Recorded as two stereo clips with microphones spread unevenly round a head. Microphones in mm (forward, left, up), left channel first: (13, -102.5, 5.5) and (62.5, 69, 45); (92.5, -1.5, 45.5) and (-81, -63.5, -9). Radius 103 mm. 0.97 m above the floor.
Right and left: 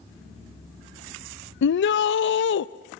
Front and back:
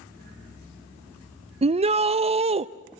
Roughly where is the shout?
Right.